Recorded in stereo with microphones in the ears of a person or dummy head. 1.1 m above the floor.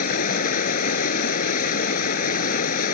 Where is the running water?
55° left (ahead or behind).